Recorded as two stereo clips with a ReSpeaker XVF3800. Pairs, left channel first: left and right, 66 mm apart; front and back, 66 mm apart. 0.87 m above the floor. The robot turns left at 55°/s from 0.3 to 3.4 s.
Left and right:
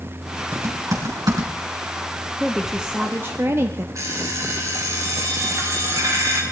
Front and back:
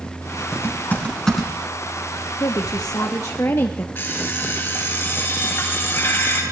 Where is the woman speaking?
10° left, 1.0 m; by 3.9 s 45° right, 1.0 m.